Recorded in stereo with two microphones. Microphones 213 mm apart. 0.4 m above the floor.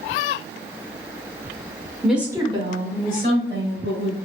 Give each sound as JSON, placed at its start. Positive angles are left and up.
{"t": 2.0, "sound": "a woman speaking", "side_deg": 0, "distance_m": 0.8}